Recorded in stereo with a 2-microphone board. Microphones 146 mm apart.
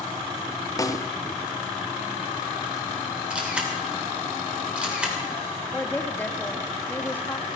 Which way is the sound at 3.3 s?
5° right (ahead or behind).